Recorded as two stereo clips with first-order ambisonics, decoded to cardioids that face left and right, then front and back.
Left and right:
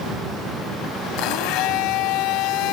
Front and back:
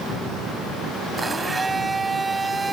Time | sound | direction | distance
1.2 | a blender | 105° left | ?